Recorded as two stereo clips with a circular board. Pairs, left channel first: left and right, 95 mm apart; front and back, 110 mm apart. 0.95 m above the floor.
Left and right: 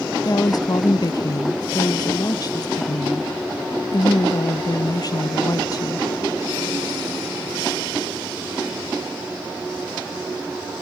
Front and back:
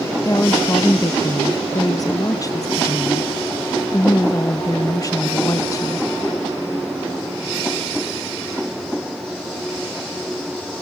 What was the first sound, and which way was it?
A woman speaking, 50° left.